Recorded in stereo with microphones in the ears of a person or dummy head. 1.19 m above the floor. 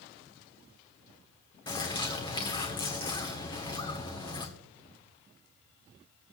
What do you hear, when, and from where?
1.7 s a bird: 25° left (ahead or behind), 1.5 m